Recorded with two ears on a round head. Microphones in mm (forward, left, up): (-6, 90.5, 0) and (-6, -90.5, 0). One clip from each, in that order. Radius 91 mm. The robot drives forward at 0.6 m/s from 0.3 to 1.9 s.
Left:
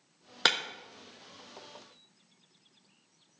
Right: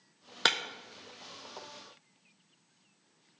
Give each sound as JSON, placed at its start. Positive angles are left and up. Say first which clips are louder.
{"t": 0.5, "sound": "breaking glass", "louder": "left 1 dB", "side_deg": 0, "distance_m": 0.5}